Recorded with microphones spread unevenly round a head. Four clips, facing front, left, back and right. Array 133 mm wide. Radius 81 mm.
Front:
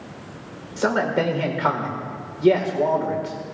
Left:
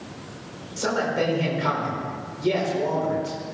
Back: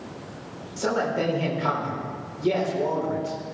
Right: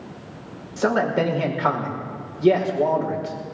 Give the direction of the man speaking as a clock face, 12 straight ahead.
1 o'clock.